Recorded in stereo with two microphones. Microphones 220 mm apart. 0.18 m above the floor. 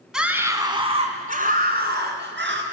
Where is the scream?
Centre (ahead or behind), 1.2 m; by 2.6 s 55° right (ahead or behind), 2 m.